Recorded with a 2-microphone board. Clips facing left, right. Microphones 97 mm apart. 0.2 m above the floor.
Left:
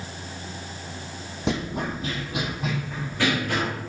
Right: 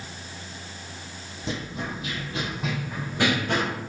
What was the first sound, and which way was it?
Running footsteps, 75° left (ahead or behind).